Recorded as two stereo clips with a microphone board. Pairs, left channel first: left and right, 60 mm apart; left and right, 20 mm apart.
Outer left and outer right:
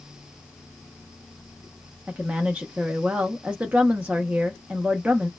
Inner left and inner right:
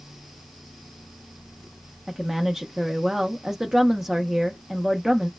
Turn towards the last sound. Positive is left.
turn(degrees=-20)  # may be behind; listen again after turning